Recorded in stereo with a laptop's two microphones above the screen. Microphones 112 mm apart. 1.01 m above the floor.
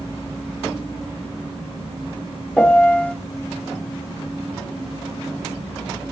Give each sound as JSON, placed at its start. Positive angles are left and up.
{"t": 2.6, "sound": "a piano", "side_deg": 10, "distance_m": 0.7}